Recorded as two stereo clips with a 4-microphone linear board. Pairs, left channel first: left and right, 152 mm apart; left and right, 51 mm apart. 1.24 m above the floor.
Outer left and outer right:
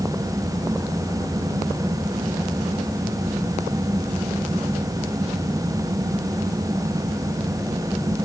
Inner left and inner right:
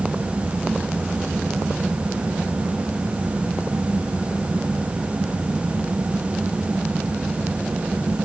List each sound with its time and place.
Only background noise.